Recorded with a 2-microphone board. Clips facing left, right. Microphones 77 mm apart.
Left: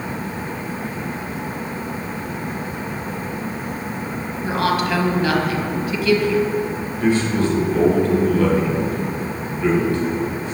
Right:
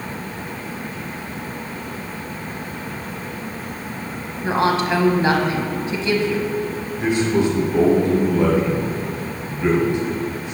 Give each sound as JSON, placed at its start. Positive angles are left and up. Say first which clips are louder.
{"t": 4.4, "sound": "a woman speaking", "louder": "right 2 dB", "side_deg": -30, "distance_m": 1.0}
{"t": 7.0, "sound": "a man speaking", "louder": "even", "side_deg": -20, "distance_m": 1.2}